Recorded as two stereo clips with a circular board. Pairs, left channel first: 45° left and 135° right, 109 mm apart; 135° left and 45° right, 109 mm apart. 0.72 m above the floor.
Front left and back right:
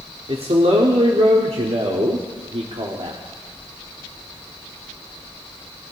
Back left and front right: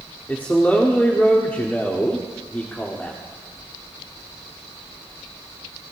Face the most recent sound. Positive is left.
turn(degrees=-150)